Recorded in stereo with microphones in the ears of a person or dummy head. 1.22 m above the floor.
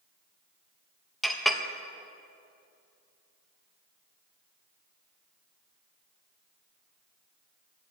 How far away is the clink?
About 0.7 m.